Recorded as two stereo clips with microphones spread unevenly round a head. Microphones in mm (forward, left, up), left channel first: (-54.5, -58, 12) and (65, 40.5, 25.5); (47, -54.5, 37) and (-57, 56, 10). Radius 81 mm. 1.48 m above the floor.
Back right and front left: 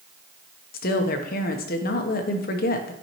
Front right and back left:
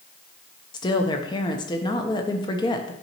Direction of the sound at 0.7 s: 110° right.